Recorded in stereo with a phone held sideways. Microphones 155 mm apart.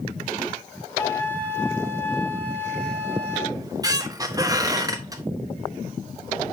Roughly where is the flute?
Centre.